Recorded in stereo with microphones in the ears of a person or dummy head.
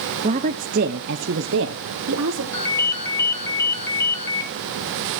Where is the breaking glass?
No breaking glass in this recording.